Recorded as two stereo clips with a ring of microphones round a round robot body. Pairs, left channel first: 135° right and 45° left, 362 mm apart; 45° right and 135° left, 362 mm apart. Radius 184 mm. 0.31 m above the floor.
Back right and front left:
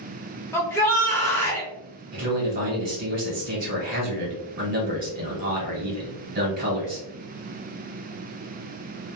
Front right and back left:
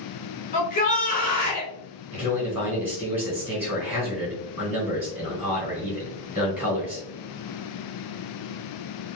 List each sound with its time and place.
0.5 s a shout: 65° right, 0.9 m
2.1 s a man speaking: 55° left, 1.3 m